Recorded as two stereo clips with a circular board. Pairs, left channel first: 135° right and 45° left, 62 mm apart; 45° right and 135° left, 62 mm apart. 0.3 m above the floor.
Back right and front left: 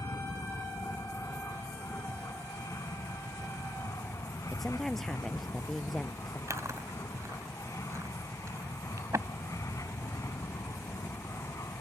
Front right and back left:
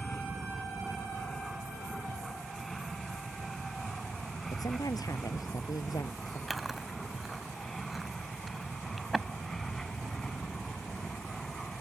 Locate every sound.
0.0 s an aircraft: 135° right; by 11.8 s 130° right
4.5 s a woman speaking: 50° right
6.5 s chewing: 45° left